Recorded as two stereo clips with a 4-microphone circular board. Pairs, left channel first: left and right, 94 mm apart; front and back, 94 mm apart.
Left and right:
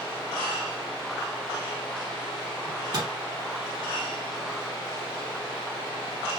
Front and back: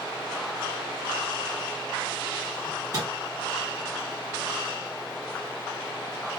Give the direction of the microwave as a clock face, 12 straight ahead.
4 o'clock.